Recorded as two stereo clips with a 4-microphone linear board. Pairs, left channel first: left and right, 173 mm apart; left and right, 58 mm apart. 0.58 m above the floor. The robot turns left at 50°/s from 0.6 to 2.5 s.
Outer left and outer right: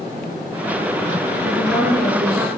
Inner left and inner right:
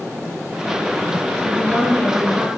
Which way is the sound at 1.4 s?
35° left.